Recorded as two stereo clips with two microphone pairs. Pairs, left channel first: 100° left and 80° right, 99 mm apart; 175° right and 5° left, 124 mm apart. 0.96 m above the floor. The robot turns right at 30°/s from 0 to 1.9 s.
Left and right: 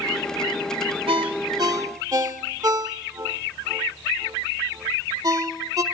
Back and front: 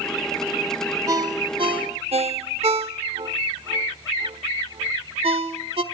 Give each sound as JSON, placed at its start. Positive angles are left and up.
{"t": 1.1, "sound": "a ringtone", "azimuth_deg": -55, "distance_m": 1.2}